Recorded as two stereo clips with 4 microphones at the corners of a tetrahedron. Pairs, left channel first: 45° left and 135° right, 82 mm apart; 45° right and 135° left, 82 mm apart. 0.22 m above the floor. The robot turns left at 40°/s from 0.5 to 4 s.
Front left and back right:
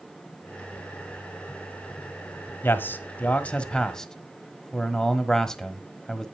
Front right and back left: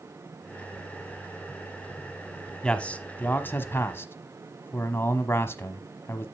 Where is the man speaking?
25° left, 1.3 m; by 6.2 s 30° right, 1.3 m.